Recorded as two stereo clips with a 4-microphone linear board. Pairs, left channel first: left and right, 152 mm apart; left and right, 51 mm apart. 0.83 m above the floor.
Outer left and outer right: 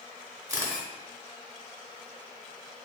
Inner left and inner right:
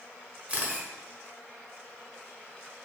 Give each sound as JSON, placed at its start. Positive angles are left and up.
{"t": 0.5, "sound": "a camera shutter", "side_deg": -25, "distance_m": 0.7}